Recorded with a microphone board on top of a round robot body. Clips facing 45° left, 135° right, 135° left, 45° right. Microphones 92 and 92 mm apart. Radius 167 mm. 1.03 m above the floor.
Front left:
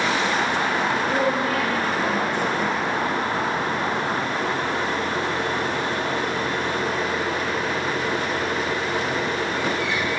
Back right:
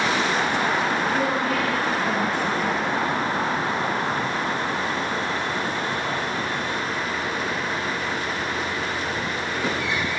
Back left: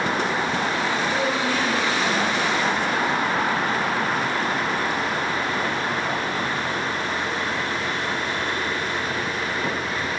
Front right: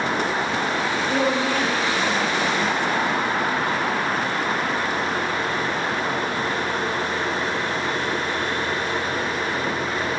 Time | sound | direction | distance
1.1 | a woman speaking | straight ahead | 1.9 m